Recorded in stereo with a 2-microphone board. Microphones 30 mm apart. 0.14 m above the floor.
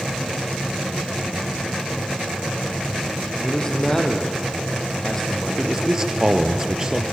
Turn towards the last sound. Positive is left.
turn(degrees=-20)  # may be behind; listen again after turning